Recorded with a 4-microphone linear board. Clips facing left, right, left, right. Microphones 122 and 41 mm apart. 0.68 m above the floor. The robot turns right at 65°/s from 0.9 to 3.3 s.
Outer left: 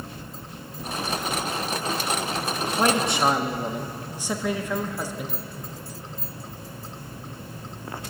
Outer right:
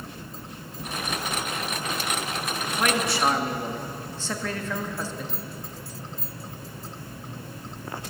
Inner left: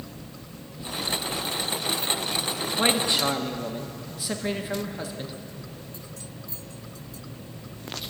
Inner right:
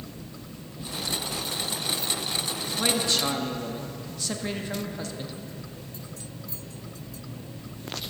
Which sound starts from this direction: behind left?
A man speaking, at 2.8 s.